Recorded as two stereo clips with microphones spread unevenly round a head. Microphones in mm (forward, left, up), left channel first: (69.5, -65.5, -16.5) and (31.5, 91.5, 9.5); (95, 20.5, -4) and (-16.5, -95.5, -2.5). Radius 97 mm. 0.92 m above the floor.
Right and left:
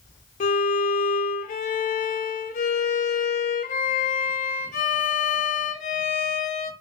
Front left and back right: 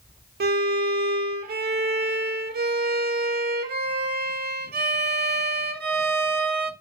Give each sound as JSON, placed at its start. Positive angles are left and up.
{"t": 0.4, "sound": "a violin", "azimuth_deg": -115, "distance_m": 0.6}